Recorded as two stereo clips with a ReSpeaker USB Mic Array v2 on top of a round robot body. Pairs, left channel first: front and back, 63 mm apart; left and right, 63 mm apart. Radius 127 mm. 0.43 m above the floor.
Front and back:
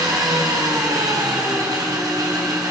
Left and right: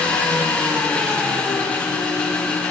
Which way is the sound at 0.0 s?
160° left.